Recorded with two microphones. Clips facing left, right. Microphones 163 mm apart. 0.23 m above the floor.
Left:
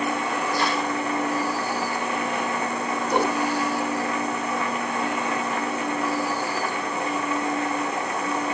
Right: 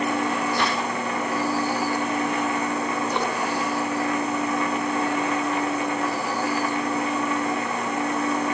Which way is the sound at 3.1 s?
55° left (ahead or behind).